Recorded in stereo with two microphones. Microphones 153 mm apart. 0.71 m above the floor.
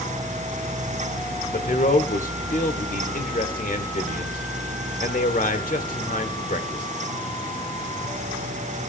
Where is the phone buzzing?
No phone buzzing in this recording.